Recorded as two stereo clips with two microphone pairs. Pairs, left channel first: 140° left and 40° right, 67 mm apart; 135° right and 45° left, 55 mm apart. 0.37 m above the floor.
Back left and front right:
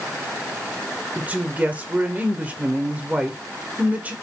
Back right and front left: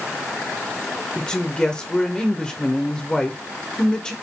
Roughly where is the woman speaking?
Right.